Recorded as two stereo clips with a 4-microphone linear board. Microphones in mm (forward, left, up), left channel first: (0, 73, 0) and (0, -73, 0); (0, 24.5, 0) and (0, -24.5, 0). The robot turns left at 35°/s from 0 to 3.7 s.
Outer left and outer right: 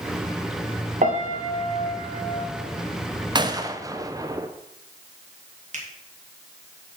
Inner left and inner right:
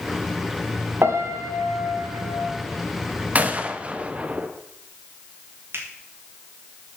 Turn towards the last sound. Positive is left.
turn(degrees=-50)  # may be behind; listen again after turning